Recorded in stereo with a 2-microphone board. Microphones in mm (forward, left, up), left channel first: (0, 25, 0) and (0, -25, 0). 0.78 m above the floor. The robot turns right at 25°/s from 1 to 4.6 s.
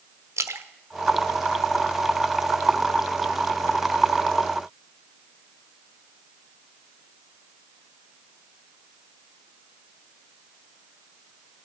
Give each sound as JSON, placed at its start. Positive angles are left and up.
{"t": 0.4, "sound": "a splash", "side_deg": -75, "distance_m": 1.0}